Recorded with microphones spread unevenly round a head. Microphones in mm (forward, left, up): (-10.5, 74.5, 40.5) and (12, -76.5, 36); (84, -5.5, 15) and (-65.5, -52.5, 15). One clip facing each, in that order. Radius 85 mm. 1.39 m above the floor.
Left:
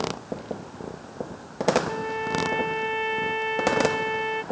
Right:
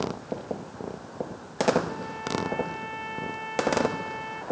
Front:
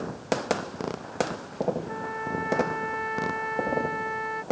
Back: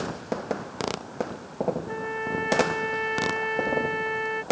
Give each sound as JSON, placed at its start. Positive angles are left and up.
{"t": 1.9, "sound": "a trumpet", "azimuth_deg": 130}